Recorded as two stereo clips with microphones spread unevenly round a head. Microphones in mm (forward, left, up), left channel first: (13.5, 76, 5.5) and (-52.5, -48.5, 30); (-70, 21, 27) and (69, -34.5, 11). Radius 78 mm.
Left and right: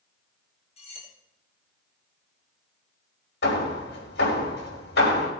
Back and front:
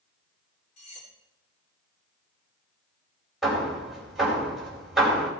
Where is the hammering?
70° left, 5 m.